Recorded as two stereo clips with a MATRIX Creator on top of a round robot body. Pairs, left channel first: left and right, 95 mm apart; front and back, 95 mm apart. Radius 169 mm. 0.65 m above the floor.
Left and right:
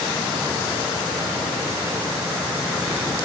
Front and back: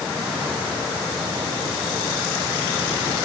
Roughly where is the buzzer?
I don't hear a buzzer.